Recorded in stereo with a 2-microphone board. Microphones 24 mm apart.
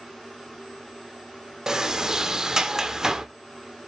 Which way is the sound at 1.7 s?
30° right (ahead or behind).